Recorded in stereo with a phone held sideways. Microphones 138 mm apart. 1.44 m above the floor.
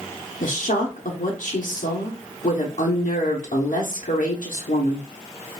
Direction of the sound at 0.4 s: 80° left.